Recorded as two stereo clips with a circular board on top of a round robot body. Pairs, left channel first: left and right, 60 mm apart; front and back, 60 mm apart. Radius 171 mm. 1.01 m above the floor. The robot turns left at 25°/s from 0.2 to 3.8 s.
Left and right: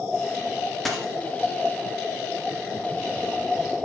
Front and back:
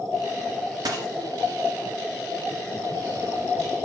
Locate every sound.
0.8 s a dropped coin: straight behind, 1.8 m; by 1.1 s 170° left, 1.8 m